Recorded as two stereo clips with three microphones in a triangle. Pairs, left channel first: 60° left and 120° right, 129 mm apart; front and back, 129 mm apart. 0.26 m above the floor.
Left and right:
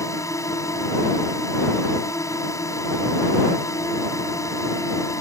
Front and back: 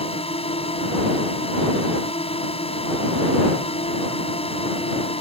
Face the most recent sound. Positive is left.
turn(degrees=5)